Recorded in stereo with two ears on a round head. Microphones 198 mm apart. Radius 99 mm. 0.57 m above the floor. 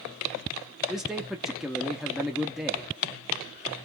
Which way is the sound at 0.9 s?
Centre (ahead or behind).